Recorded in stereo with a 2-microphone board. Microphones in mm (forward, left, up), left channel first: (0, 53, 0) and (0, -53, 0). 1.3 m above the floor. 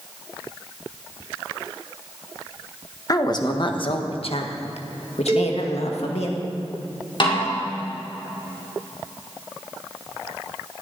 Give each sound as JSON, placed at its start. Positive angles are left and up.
{"t": 3.1, "sound": "a woman speaking", "side_deg": 35, "distance_m": 1.5}
{"t": 5.3, "sound": "a cowbell", "side_deg": -30, "distance_m": 2.0}
{"t": 7.2, "sound": "a snare drum", "side_deg": 50, "distance_m": 4.5}